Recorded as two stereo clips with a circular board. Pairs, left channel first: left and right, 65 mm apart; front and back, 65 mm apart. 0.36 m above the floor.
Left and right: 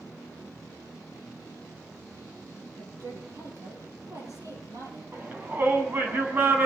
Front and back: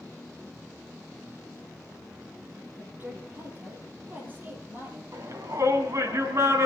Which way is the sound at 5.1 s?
145° right.